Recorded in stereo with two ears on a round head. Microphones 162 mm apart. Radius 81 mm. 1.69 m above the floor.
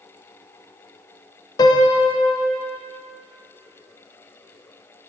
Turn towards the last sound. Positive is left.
turn(degrees=20)  # may be behind; listen again after turning